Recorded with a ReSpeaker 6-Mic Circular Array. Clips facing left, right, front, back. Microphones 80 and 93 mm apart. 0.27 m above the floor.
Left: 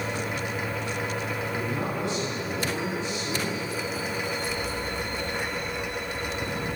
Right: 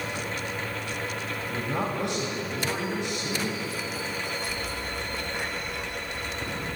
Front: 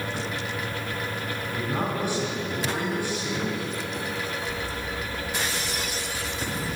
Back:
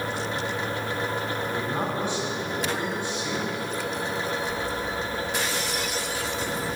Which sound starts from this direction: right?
A man speaking, at 1.5 s.